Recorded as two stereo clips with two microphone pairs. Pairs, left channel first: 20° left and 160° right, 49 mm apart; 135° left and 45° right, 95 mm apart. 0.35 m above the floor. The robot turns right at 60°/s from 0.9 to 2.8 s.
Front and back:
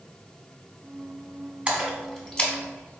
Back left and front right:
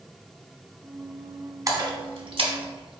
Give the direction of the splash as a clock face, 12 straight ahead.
3 o'clock.